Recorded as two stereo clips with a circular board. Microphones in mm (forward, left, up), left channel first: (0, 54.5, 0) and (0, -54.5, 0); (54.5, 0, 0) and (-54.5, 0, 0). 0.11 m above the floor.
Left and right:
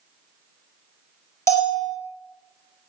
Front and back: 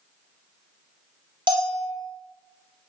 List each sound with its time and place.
1.5 s a bell: 150° left, 2 m